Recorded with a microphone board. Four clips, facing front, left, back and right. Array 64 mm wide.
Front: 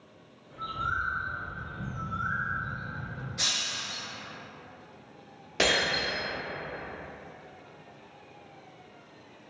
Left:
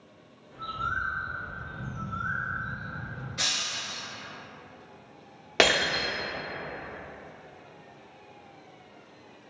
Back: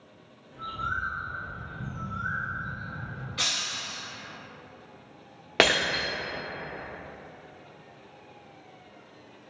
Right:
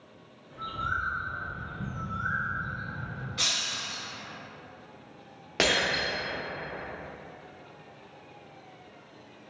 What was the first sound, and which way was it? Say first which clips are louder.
A bird: even, even; 60° right.